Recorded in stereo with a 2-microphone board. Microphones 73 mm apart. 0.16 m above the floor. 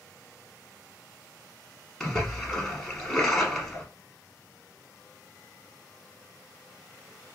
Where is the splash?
5° left (ahead or behind), 0.8 m.